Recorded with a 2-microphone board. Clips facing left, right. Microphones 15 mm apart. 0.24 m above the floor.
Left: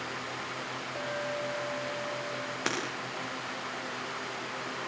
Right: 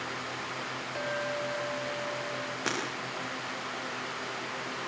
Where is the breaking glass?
25° left (ahead or behind), 9 m.